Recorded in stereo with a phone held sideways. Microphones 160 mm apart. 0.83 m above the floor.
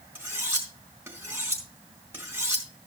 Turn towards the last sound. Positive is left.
turn(degrees=-15)  # may be behind; listen again after turning